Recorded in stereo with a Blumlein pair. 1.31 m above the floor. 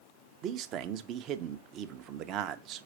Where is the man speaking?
35° right, 0.7 m.